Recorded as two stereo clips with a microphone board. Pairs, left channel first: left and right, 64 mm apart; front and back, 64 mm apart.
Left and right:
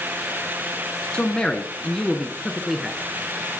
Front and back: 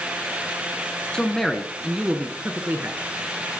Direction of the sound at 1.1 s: 50° left.